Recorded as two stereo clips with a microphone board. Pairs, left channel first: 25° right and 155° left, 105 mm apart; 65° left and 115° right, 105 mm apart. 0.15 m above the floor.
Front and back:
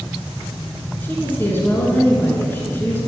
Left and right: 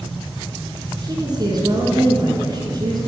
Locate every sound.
1.0 s a woman speaking: 85° right, 2 m